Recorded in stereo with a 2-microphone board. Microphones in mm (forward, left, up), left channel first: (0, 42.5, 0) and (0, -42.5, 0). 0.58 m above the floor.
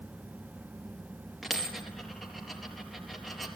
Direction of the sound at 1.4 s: Centre (ahead or behind).